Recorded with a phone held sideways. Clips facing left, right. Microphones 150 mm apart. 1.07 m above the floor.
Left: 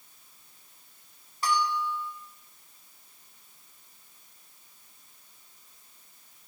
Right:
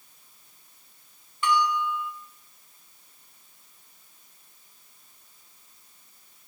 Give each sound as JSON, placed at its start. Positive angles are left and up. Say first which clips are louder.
{"t": 1.4, "sound": "a bell", "louder": "right 3 dB", "side_deg": 40, "distance_m": 10.0}